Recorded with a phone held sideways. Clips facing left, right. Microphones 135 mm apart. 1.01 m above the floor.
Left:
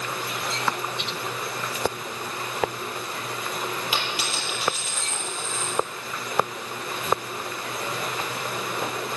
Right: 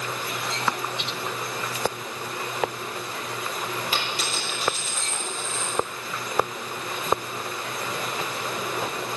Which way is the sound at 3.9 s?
10° left (ahead or behind).